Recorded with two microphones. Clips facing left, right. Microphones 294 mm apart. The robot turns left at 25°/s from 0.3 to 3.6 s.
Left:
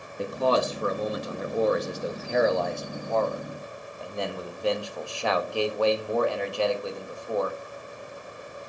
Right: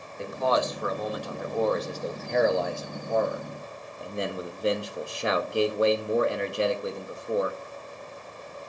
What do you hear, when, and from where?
0.2 s a man speaking: 55° left, 0.9 m; by 7.6 s 25° right, 0.9 m